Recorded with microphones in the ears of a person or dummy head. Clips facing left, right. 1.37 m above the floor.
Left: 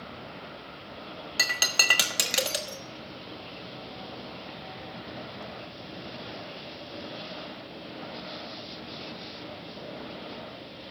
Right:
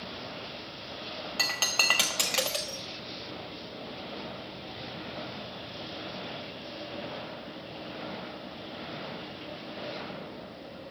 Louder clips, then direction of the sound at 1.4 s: Left 3 dB; 20° left (ahead or behind).